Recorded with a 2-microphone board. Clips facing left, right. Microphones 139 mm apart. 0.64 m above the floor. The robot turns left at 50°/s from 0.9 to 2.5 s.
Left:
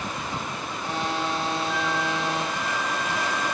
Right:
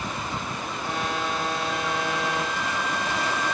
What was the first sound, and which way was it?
A flute, 90° left.